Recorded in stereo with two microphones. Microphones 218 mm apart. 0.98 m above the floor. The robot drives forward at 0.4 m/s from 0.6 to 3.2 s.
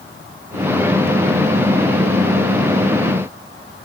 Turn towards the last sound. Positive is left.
No sound to turn to.